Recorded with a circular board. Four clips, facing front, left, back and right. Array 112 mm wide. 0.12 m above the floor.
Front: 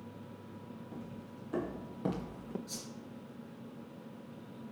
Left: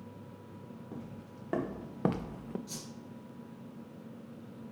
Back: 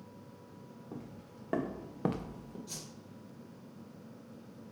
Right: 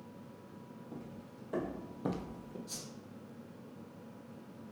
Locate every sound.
0.9 s footsteps: 150° left, 2.5 m; by 2.6 s 55° left, 0.6 m
2.7 s a whoosh: 155° left, 2.5 m